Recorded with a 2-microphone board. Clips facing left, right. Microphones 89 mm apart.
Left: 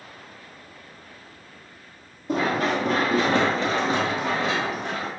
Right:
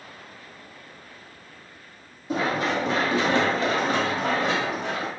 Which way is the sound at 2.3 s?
60° left (ahead or behind).